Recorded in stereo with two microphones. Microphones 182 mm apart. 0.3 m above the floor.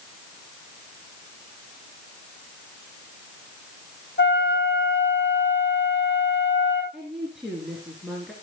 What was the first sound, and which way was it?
A flute, 75° left (ahead or behind).